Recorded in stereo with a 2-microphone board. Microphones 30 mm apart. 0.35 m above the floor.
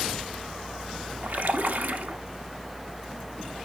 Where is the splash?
80° right, 0.9 m.